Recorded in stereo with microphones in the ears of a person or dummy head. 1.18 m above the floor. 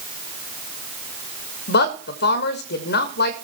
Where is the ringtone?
No ringtone in this recording.